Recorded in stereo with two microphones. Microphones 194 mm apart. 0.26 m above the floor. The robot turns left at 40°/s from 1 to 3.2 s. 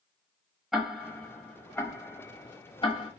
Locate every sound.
0.7 s ticking: centre (ahead or behind), 0.6 m; by 3.1 s 25° left (ahead or behind), 0.6 m